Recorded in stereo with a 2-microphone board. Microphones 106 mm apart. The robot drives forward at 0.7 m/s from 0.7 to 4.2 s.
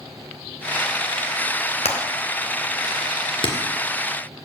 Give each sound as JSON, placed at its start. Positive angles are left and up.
{"t": 1.9, "sound": "hammering", "side_deg": 85, "distance_m": 1.9}